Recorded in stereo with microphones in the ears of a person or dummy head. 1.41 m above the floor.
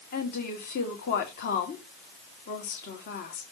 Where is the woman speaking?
50° left (ahead or behind), 2 m.